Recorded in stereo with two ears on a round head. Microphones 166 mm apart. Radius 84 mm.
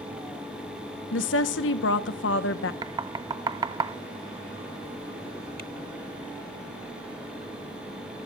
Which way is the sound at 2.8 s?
20° right (ahead or behind).